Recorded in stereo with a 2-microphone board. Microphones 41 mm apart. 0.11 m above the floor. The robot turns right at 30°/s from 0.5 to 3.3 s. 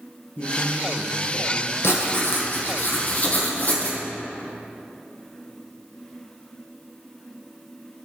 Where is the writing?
95° left, 1.6 m; by 4.0 s 140° left, 1.6 m.